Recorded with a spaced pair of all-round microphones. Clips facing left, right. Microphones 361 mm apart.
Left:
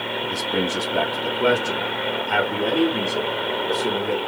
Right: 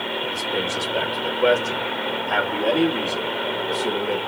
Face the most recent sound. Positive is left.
turn(degrees=15)  # may be behind; listen again after turning